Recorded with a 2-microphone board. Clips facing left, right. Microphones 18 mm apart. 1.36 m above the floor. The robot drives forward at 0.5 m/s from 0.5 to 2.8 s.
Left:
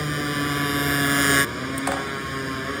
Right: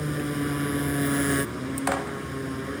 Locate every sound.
0.0 s a motorcycle: 75° left (ahead or behind); by 2.8 s 85° left